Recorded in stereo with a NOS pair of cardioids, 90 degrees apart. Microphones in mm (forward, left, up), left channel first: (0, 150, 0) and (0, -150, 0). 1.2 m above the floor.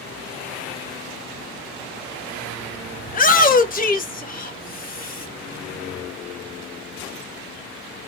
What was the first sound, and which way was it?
A shout, 30° left.